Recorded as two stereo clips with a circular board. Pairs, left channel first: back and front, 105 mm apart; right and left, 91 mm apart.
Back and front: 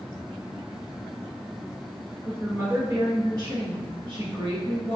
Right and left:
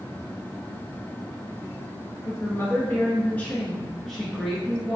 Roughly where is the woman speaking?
Ahead right.